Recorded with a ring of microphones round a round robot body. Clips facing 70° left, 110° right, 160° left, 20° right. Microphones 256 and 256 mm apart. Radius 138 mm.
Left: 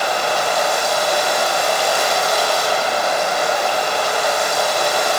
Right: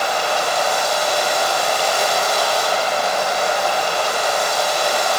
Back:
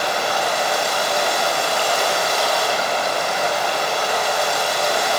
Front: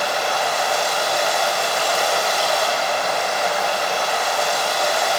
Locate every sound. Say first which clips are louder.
0.0 s running water: left 1 dB, back 1 dB; 105° left, 6.5 m